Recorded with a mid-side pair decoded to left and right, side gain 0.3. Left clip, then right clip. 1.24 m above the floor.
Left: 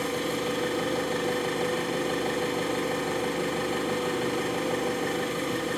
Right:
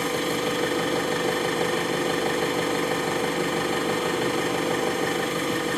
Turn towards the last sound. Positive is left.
turn(degrees=-65)